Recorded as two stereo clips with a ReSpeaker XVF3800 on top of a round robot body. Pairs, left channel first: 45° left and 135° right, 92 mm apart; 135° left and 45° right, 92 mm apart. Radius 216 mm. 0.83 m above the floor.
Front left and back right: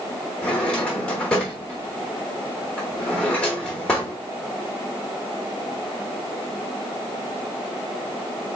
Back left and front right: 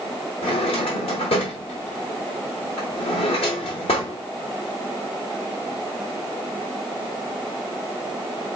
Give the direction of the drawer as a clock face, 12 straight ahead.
8 o'clock.